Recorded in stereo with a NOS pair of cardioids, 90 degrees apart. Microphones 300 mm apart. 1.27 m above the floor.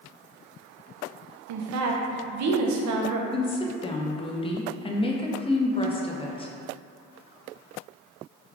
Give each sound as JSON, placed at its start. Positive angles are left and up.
{"t": 1.5, "sound": "a woman speaking", "azimuth_deg": -65, "distance_m": 0.6}
{"t": 3.3, "sound": "a woman speaking", "azimuth_deg": 20, "distance_m": 0.5}